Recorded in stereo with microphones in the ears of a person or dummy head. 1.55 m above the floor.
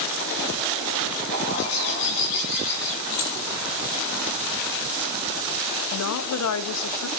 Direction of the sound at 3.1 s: 60° left (ahead or behind).